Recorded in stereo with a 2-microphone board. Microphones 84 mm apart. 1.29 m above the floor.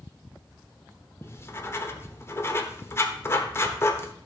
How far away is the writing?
About 1.0 m.